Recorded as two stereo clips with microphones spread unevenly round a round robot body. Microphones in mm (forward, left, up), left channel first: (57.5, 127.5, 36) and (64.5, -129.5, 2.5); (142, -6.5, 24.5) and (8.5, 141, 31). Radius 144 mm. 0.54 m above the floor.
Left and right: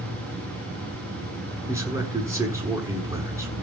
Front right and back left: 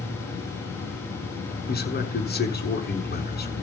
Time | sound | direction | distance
0.0 | an insect | 55° right | 3.5 m
1.7 | a man speaking | 10° right | 6.5 m